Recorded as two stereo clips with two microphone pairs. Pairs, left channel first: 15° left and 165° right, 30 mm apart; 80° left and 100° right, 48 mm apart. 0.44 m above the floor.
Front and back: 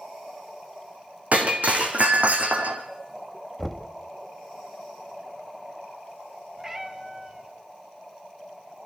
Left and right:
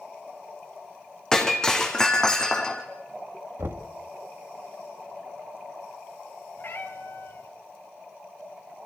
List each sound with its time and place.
1.3 s breaking glass: 160° left, 3 m
3.6 s knocking: 75° right, 1.5 m
6.6 s a cat meowing: 120° left, 1.7 m